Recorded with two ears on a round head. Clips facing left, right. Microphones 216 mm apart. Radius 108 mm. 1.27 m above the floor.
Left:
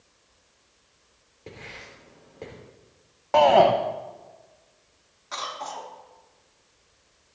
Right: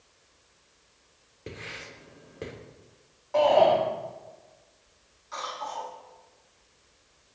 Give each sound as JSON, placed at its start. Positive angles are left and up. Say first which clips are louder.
{"t": 1.5, "sound": "writing", "louder": "right 2 dB", "side_deg": -20, "distance_m": 2.5}
{"t": 3.3, "sound": "a shout", "louder": "left 3 dB", "side_deg": 75, "distance_m": 1.1}
{"t": 5.3, "sound": "a cough", "louder": "left 1 dB", "side_deg": 75, "distance_m": 3.5}